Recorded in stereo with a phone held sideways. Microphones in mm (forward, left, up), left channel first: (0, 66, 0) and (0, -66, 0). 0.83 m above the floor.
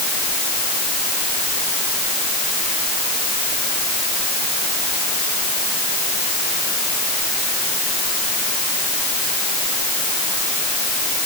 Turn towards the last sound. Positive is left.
No sound to turn to.